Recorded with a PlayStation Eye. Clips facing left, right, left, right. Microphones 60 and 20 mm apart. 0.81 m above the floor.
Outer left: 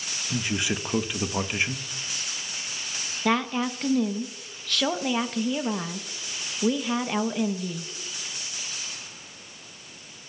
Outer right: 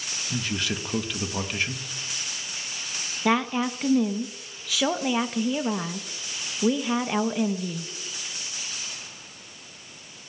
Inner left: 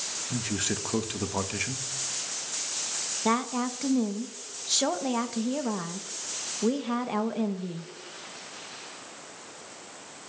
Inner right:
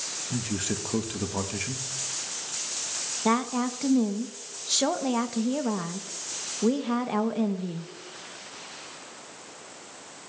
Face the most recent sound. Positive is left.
turn(degrees=-5)  # may be behind; listen again after turning